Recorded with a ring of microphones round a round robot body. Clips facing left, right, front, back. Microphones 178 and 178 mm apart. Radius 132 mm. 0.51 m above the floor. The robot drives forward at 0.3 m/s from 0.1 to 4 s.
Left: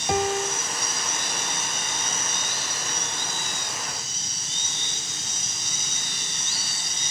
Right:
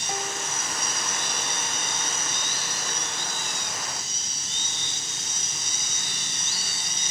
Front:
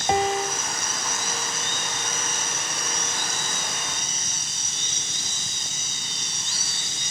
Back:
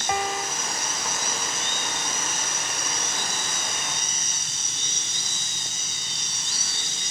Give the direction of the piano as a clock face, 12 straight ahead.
10 o'clock.